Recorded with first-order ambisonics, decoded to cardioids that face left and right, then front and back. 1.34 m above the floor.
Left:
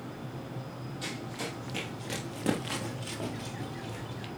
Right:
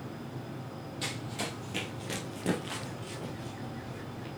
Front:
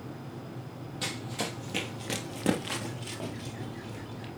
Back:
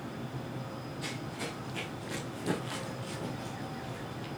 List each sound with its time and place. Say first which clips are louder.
1.0 s running footsteps: right 1 dB, front 6 dB; 30° right, 2.5 m; by 4.3 s 90° left, 2 m